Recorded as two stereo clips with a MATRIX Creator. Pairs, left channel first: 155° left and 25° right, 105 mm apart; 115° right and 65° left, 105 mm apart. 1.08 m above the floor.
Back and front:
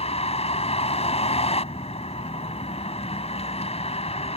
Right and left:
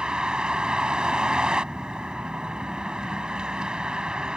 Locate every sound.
0.0 s a vehicle: 150° left